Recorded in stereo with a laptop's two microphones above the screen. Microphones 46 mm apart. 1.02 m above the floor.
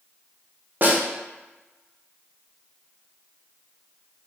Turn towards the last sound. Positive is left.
turn(degrees=-45)  # may be behind; listen again after turning